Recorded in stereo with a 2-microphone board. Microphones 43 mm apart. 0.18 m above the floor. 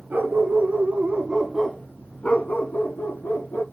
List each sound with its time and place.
0.1 s a dog barking: 50° right (ahead or behind), 1.1 m; by 3.6 s 70° left (ahead or behind), 1.3 m